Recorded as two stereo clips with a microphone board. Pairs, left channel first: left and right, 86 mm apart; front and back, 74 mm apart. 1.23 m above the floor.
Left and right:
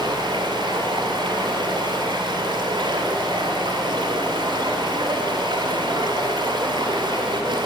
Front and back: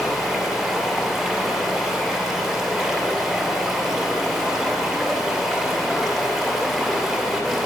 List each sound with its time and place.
0.0 s running water: 90° right, 1.9 m